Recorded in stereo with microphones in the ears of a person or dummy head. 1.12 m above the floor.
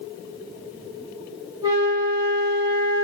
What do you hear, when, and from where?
1.6 s a flute: 25° right (ahead or behind), 1.2 m